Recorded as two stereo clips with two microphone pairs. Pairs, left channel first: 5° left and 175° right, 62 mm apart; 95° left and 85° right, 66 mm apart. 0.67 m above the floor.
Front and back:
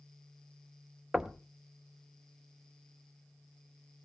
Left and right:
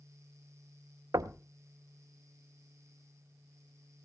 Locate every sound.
1.1 s knocking: 95° right, 0.6 m